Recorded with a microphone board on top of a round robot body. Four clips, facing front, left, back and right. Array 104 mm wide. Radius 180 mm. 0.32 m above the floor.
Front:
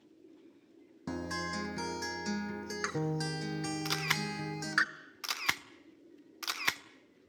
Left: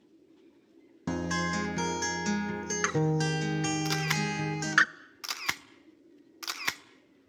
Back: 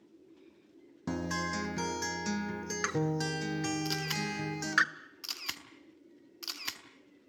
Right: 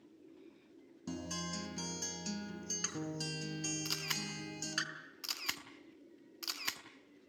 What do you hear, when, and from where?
1.1 s a guitar: 100° left, 1.1 m
3.9 s a camera shutter: 45° left, 1.3 m